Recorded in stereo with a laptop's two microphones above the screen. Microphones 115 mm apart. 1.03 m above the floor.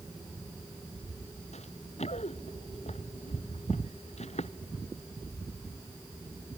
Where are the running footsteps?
85° left.